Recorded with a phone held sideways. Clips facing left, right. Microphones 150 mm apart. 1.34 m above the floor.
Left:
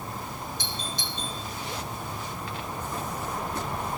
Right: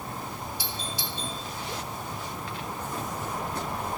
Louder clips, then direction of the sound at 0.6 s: Even; 10° right (ahead or behind).